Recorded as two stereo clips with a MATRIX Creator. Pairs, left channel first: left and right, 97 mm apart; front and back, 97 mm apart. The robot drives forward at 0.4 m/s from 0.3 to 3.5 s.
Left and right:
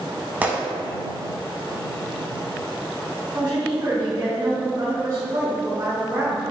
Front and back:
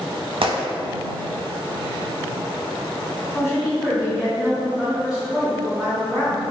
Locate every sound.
0.4 s a gunshot: 160° right, 0.5 m; by 0.6 s 165° right, 0.6 m
3.3 s a woman speaking: 95° right, 1.0 m; by 6.4 s 100° right, 1.0 m